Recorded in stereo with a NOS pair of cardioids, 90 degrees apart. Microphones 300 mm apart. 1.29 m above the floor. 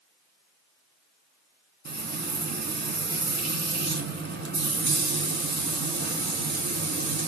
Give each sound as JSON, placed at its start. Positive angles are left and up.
{"t": 1.9, "sound": "frying", "azimuth_deg": -35, "distance_m": 2.0}